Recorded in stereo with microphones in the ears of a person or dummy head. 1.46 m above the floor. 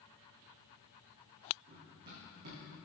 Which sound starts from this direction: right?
Running footsteps, at 1.7 s.